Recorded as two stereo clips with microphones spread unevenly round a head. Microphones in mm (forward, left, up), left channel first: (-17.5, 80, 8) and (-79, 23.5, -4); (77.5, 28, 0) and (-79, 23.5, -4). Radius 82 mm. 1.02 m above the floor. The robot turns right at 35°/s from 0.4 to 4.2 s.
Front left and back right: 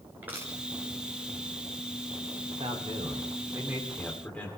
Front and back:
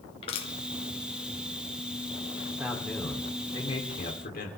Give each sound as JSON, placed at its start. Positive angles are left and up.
{"t": 0.2, "sound": "crushing", "azimuth_deg": -55, "distance_m": 2.5}
{"t": 2.5, "sound": "a man speaking", "azimuth_deg": -100, "distance_m": 3.0}